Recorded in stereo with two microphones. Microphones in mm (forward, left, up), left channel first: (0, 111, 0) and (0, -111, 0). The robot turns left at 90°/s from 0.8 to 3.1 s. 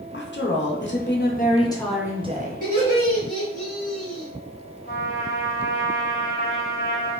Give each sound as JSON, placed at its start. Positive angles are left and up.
{"t": 0.1, "sound": "a woman speaking", "azimuth_deg": 100, "distance_m": 0.6}
{"t": 2.6, "sound": "laughter", "azimuth_deg": -135, "distance_m": 1.6}
{"t": 4.9, "sound": "a trumpet", "side_deg": 45, "distance_m": 1.1}